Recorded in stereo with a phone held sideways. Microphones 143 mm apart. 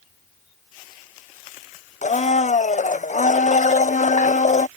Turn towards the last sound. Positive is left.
turn(degrees=55)  # may be behind; listen again after turning